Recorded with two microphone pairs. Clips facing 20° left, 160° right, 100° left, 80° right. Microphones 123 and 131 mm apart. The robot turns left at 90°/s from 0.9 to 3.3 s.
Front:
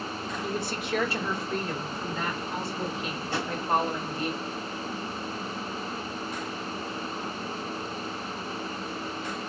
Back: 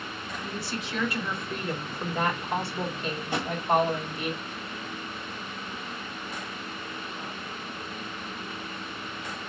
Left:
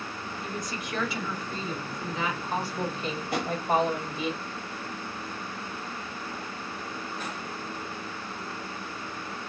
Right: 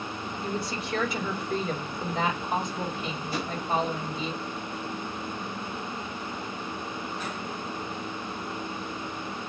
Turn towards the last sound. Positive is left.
turn(degrees=125)